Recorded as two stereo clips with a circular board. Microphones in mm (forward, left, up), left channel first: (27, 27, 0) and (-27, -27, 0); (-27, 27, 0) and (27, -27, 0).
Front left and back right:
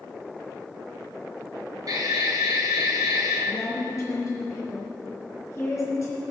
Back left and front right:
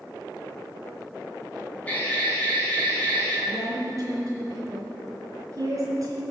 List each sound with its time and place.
1.9 s an alarm: 160° right, 4 m
3.5 s a woman speaking: 5° right, 4 m